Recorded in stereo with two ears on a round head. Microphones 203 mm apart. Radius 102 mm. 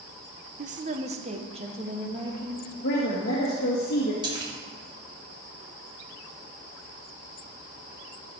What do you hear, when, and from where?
0.6 s a woman speaking: 40° right (ahead or behind), 0.7 m; by 2.7 s 25° right (ahead or behind), 2.5 m
2.8 s a woman speaking: 50° left (ahead or behind), 1.7 m
4.2 s a splash: 20° right (ahead or behind), 2 m